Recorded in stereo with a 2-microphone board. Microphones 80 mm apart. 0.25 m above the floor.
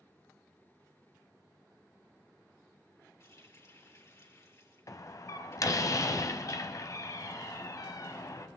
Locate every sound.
3.2 s a running tap: 40° left (ahead or behind), 3.5 m
4.9 s a door slam: 45° left (ahead or behind), 1.0 m